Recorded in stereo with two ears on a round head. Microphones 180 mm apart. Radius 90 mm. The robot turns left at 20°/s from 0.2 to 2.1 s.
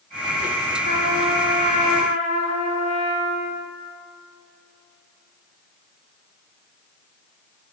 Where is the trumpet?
35° left (ahead or behind), 1.1 m.